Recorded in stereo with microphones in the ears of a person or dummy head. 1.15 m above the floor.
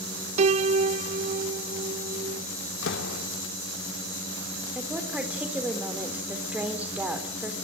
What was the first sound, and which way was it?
A piano, 35° right (ahead or behind).